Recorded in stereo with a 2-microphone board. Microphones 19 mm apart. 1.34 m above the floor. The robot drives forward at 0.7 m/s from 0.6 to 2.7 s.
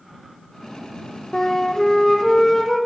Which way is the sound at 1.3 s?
35° left (ahead or behind).